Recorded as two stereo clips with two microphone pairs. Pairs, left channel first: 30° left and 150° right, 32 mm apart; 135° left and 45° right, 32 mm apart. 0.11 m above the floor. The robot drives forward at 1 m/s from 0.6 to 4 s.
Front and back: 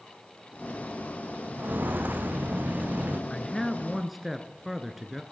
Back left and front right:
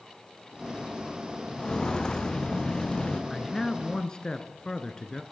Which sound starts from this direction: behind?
Footsteps, at 1.6 s.